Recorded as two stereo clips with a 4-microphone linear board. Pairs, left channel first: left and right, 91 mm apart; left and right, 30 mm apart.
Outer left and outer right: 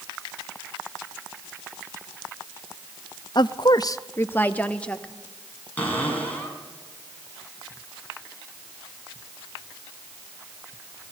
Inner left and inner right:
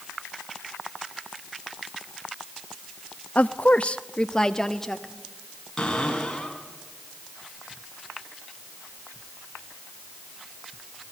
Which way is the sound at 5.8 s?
15° left (ahead or behind).